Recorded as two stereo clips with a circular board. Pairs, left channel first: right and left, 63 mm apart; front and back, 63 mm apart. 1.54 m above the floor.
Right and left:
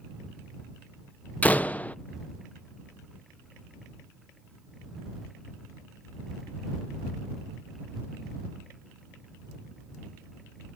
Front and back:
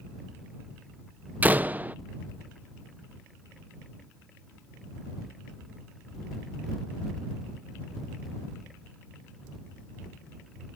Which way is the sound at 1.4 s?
135° right.